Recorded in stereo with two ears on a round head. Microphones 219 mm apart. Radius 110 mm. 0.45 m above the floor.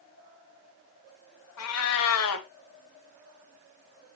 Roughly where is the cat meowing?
Left.